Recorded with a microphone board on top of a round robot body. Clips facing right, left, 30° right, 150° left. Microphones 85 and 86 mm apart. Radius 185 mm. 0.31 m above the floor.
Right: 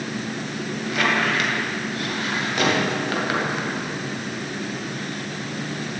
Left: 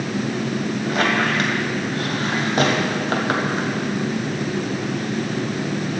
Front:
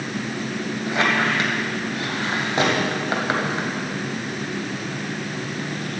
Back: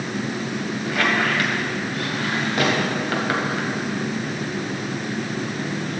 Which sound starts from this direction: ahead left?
A squeak, at 0.9 s.